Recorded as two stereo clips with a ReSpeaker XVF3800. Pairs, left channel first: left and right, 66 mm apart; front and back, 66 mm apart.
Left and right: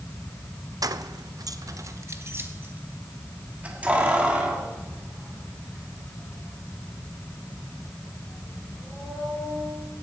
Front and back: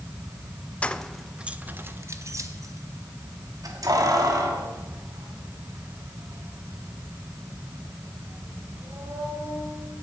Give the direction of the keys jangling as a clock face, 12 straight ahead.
2 o'clock.